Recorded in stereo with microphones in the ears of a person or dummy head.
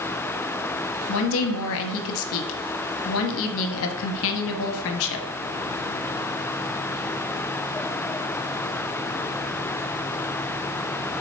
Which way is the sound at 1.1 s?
65° left (ahead or behind).